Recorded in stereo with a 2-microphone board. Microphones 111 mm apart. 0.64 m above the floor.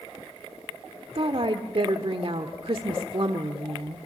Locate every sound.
1.1 s a woman speaking: 55° right (ahead or behind), 1.5 m